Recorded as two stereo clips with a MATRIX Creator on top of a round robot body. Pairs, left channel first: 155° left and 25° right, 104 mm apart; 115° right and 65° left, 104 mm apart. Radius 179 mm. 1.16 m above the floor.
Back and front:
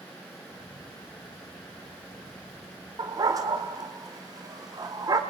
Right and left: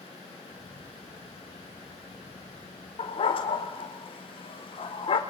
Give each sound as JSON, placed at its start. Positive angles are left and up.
{"t": 0.5, "sound": "a camera shutter", "azimuth_deg": 20, "distance_m": 9.5}
{"t": 3.0, "sound": "a dog barking", "azimuth_deg": -75, "distance_m": 1.5}